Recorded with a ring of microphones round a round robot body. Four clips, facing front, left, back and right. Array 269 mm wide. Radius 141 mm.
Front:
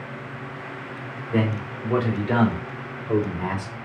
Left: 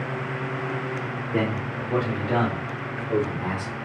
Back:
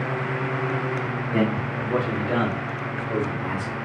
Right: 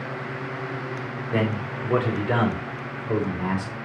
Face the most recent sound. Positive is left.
turn(degrees=-30)